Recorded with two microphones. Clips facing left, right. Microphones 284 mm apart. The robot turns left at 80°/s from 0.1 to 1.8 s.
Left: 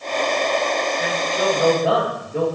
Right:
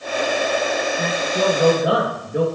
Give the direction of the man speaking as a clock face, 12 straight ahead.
3 o'clock.